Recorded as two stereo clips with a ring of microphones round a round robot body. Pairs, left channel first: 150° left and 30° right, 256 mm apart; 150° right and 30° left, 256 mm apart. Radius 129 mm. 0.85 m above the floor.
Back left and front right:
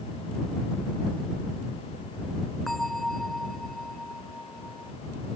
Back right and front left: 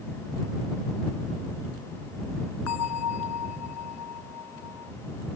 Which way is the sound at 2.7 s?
120° right.